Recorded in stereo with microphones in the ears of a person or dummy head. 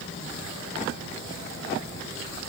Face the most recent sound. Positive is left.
No sound to turn to.